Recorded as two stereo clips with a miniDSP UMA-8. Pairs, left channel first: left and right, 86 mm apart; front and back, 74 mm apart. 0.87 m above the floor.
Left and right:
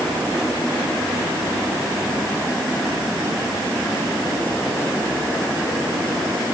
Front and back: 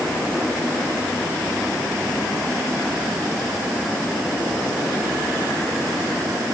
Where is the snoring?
No snoring in this recording.